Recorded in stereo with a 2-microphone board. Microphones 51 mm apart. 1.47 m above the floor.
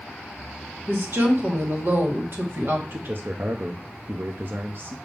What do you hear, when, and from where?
0.9 s a woman speaking: 50° right (ahead or behind), 1.7 m
2.9 s a man speaking: 45° right (ahead or behind), 0.7 m